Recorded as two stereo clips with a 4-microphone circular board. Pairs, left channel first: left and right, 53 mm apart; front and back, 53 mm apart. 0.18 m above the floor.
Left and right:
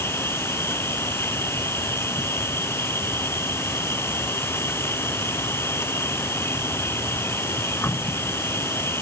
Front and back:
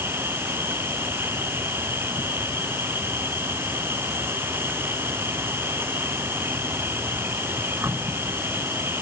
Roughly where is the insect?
Behind left.